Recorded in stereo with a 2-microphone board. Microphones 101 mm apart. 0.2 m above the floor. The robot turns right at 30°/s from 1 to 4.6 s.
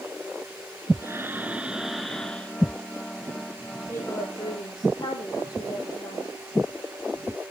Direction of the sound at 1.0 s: 30° right.